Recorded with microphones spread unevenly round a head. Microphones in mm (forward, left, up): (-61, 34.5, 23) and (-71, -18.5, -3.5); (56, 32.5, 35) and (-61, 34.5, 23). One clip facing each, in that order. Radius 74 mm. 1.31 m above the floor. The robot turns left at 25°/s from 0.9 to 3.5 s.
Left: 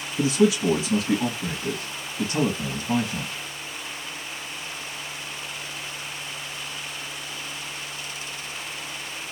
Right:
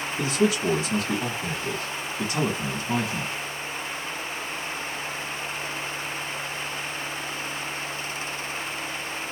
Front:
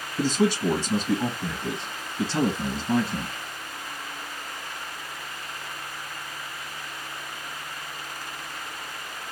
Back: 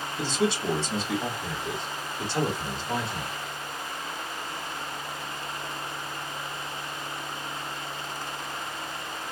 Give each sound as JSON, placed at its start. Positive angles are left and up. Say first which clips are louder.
{"t": 0.2, "sound": "a man speaking", "louder": "left 4 dB, front 4 dB", "azimuth_deg": 45, "distance_m": 1.8}